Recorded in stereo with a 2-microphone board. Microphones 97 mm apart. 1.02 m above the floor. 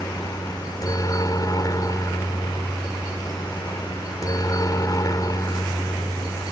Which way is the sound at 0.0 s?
40° left (ahead or behind).